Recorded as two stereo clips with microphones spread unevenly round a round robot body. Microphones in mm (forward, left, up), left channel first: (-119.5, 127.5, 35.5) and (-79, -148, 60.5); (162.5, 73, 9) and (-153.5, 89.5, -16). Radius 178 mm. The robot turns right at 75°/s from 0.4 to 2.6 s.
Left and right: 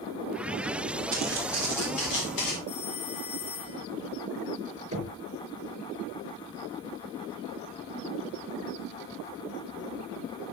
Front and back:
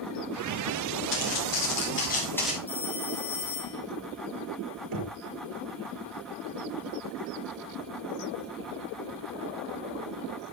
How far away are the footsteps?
About 5.5 m.